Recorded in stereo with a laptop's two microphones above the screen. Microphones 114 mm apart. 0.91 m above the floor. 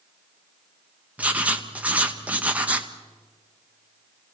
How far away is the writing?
About 0.9 m.